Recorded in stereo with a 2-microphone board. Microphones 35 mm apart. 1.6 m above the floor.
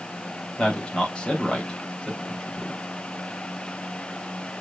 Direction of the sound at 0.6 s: 25° left (ahead or behind).